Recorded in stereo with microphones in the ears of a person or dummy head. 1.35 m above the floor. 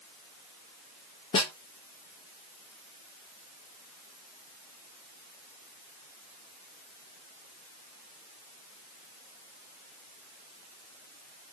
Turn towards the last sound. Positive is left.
turn(degrees=30)  # may be behind; listen again after turning